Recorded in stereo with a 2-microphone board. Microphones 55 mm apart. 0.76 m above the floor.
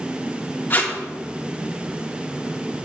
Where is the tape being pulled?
35° left (ahead or behind), 2 m.